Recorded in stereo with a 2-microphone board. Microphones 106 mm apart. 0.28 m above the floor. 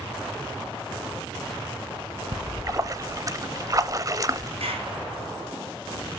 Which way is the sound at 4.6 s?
75° right (ahead or behind).